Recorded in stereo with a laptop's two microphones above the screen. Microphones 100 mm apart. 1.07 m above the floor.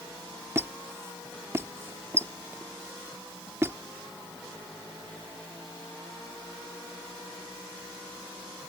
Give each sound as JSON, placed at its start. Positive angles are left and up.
{"t": 0.6, "sound": "a squeak", "side_deg": -25}